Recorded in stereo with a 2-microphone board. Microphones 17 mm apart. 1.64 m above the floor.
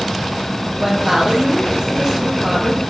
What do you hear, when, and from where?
0.7 s a woman speaking: 35° right (ahead or behind), 2 m